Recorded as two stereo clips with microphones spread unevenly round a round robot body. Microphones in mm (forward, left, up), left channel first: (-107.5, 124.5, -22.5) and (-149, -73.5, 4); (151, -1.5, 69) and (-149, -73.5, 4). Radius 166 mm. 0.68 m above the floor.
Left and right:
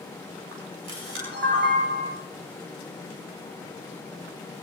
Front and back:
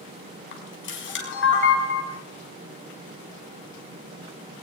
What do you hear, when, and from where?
0.5 s a camera shutter: 45° right, 6 m